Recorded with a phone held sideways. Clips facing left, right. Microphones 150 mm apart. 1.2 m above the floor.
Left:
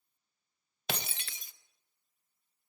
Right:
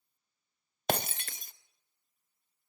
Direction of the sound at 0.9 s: 50° right (ahead or behind).